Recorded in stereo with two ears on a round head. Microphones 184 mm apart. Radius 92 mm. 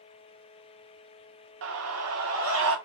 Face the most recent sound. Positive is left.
turn(degrees=-70)  # may be behind; listen again after turning